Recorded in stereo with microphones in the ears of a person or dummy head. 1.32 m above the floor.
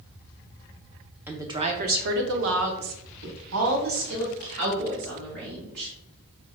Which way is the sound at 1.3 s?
10° right (ahead or behind).